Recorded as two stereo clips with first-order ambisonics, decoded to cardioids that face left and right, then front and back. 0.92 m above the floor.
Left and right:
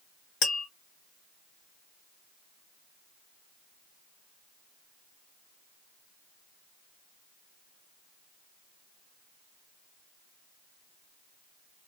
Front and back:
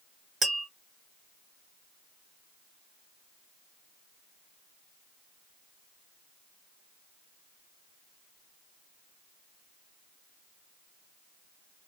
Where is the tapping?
115° left, 1.3 m.